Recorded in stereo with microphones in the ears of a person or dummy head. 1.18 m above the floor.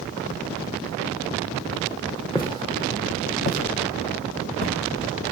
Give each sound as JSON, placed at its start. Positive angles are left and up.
{"t": 2.4, "sound": "footsteps", "side_deg": 25, "distance_m": 2.5}